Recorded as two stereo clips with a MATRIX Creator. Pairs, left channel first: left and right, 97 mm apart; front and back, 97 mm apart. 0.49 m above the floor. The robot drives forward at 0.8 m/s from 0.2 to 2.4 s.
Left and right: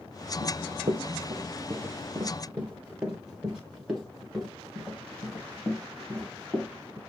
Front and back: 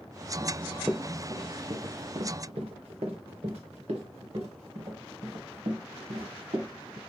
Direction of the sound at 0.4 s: 85° right.